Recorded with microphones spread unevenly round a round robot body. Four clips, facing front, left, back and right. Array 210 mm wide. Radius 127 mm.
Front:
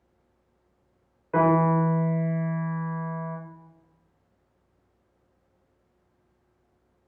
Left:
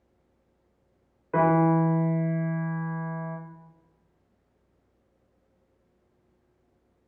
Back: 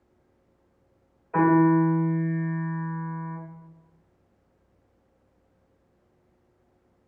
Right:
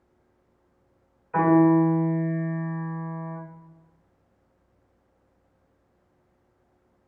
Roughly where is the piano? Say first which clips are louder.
Right 4 dB, back 2 dB; ahead left.